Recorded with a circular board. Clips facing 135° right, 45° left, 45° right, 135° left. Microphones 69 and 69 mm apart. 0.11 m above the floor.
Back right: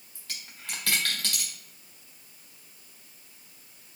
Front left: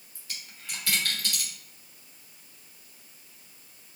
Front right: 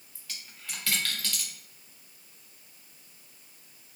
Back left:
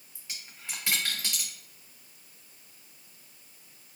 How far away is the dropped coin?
About 1.1 m.